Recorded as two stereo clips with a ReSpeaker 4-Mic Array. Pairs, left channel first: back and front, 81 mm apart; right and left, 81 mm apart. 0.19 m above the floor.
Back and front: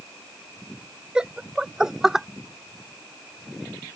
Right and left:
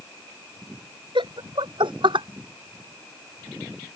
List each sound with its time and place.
1.1 s laughter: 80° left; by 2.3 s 85° left